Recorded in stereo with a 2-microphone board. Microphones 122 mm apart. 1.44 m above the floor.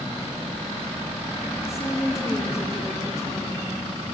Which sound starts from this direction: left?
A woman speaking, at 1.7 s.